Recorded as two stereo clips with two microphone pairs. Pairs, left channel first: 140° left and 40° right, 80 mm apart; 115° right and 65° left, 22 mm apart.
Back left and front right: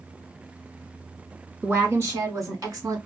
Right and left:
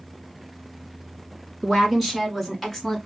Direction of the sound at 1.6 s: 10° right.